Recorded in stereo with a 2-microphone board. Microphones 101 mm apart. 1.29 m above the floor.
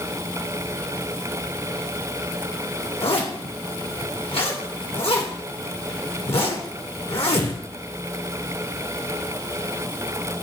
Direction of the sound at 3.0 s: 70° left (ahead or behind).